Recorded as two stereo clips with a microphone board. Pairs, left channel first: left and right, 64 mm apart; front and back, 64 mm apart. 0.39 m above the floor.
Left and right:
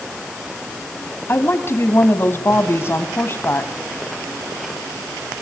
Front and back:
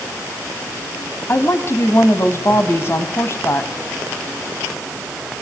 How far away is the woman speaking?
About 2.5 m.